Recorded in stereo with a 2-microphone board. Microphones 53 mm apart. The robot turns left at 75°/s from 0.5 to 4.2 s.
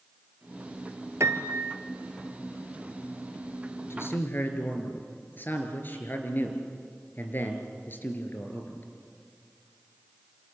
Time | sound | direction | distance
1.2 | a piano | 95° right | 1.4 m
3.9 | a man speaking | 60° left (ahead or behind) | 3.5 m